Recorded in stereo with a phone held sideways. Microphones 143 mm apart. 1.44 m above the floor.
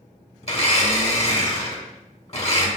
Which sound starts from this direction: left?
A blender, at 0.4 s.